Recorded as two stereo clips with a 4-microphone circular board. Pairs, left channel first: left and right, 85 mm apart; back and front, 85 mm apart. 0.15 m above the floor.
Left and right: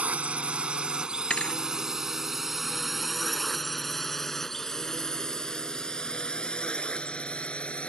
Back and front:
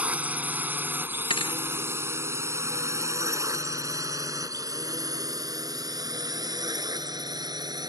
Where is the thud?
170° left.